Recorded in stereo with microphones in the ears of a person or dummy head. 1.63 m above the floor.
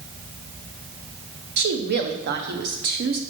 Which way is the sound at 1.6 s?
60° right (ahead or behind).